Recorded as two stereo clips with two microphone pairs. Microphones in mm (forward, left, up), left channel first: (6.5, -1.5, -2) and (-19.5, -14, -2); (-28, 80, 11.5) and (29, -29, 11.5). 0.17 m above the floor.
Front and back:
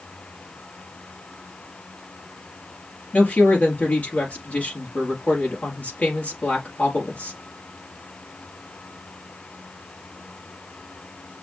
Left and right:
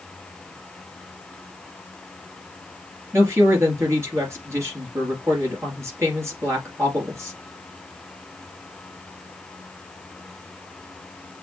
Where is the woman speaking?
5° left, 3 m.